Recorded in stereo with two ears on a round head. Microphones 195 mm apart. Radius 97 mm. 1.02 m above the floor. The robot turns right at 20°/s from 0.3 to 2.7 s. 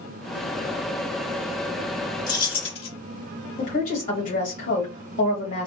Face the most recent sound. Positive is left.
turn(degrees=35)  # may be behind; listen again after turning